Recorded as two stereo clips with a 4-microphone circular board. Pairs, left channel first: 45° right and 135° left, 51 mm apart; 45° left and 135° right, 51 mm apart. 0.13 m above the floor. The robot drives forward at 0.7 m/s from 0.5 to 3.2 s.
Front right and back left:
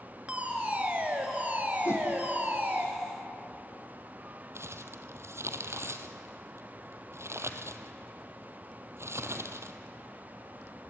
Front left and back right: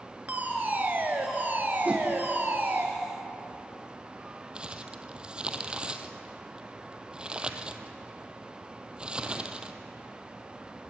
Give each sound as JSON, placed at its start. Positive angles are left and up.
{"t": 0.3, "sound": "a fire alarm", "azimuth_deg": -175, "distance_m": 2.5}
{"t": 1.9, "sound": "a whoosh", "azimuth_deg": -70, "distance_m": 3.0}
{"t": 4.5, "sound": "crumpling", "azimuth_deg": 155, "distance_m": 1.3}